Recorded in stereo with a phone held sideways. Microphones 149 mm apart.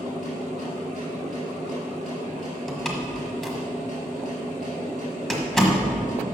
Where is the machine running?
55° right (ahead or behind), 3.5 m.